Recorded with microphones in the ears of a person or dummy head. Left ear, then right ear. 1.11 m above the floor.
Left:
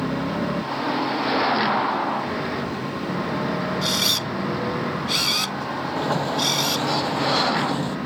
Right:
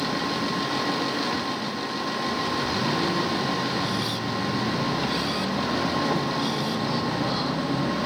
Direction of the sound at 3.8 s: 65° left (ahead or behind).